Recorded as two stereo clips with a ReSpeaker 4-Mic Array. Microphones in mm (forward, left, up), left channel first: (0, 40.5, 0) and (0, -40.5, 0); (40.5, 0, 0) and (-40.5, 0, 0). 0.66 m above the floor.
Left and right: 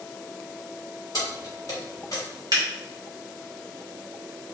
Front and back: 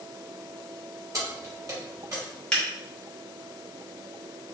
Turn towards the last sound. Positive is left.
turn(degrees=-75)